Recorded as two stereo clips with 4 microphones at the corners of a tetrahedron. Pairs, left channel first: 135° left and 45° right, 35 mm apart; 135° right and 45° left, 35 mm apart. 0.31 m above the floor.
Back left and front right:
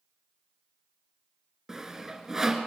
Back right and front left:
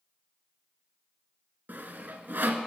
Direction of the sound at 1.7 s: 30° left.